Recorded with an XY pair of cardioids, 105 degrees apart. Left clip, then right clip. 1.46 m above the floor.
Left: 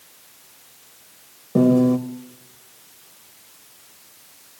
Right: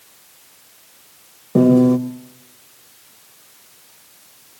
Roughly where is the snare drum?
No snare drum in this recording.